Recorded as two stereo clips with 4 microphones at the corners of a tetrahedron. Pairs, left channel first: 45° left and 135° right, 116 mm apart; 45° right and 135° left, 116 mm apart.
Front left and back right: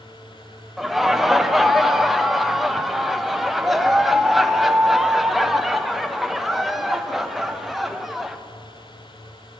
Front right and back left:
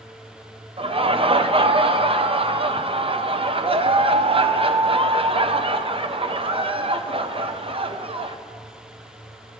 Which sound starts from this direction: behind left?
Laughter, at 0.8 s.